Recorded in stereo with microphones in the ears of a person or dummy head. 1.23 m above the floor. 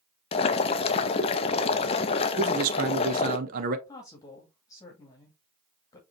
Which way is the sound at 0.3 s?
30° left (ahead or behind).